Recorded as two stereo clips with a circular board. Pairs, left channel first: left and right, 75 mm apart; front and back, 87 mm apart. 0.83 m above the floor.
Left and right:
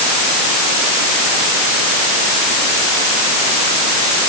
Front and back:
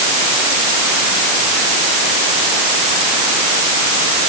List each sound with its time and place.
Only background noise.